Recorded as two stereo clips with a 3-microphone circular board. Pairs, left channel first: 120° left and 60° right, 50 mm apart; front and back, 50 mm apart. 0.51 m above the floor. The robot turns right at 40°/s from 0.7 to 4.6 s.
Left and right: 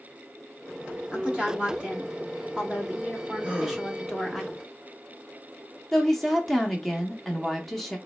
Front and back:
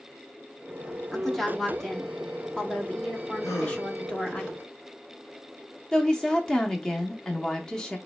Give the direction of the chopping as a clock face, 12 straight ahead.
I don't hear chopping.